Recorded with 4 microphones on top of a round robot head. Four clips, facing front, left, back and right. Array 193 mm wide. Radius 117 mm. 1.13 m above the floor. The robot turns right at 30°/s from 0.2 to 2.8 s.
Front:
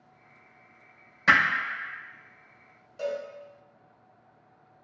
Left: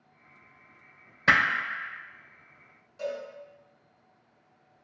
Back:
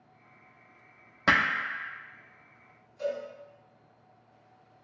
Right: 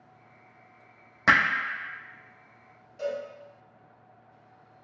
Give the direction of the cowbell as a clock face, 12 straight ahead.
12 o'clock.